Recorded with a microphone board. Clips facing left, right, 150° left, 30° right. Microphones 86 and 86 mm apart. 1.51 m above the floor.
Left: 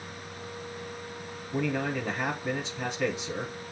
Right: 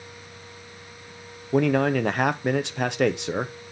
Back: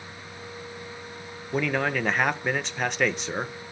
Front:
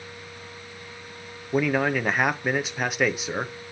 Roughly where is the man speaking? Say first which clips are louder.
Right 9 dB, front 3 dB; behind right.